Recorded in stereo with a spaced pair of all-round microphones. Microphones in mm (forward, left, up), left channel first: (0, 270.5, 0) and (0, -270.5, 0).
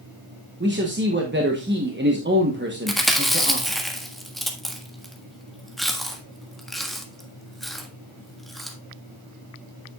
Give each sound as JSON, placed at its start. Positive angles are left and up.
{"t": 0.6, "sound": "a man speaking", "side_deg": -20, "distance_m": 1.1}
{"t": 2.9, "sound": "chewing", "side_deg": 0, "distance_m": 1.5}